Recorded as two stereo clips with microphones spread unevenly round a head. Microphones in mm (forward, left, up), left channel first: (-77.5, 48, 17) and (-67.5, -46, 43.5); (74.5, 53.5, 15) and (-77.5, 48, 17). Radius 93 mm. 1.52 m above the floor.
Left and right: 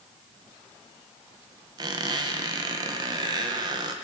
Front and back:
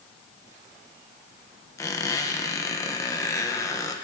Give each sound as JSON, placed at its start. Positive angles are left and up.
{"t": 1.8, "sound": "a squeak", "azimuth_deg": -70, "distance_m": 0.7}